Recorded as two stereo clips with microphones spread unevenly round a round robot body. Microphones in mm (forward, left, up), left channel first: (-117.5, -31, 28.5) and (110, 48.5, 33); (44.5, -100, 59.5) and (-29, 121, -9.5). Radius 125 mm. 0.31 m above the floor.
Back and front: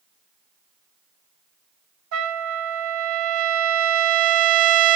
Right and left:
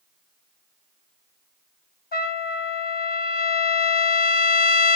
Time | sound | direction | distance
2.1 | a trumpet | 15° right | 1.1 m